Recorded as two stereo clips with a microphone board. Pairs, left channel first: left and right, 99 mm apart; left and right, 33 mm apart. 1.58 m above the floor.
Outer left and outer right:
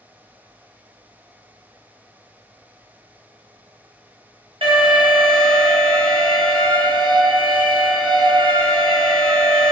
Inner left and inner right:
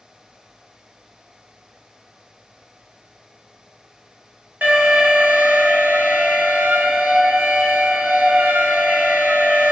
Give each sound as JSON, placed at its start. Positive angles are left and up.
{"t": 4.6, "sound": "an alarm", "side_deg": -65, "distance_m": 1.2}